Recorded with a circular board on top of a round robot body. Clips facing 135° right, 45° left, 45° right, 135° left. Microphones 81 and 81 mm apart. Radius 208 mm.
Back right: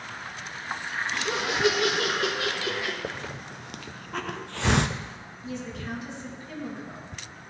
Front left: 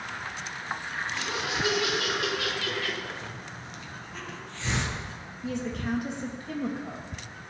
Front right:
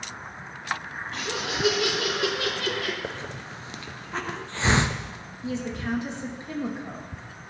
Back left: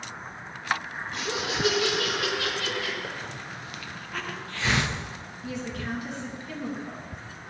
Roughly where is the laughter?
Behind right.